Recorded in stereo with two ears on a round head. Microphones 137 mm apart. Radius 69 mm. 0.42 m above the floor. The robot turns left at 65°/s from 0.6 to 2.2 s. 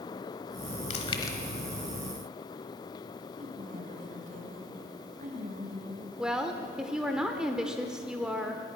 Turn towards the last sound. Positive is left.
turn(degrees=-5)  # may be behind; listen again after turning